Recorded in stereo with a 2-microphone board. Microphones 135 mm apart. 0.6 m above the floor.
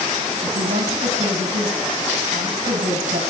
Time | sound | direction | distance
0.4 | a woman speaking | 80° right | 4 m